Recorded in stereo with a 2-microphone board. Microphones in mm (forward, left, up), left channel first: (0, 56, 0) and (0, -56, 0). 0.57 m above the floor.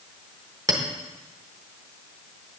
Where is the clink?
30° right (ahead or behind), 1.0 m.